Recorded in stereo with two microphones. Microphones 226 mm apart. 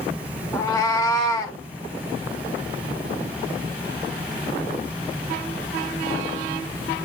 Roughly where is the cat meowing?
Centre.